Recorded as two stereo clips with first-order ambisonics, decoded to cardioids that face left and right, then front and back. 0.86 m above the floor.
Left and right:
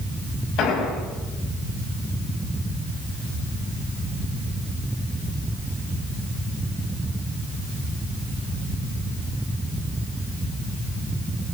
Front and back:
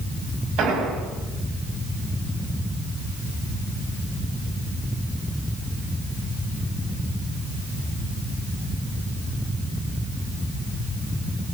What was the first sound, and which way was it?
An explosion, 135° left.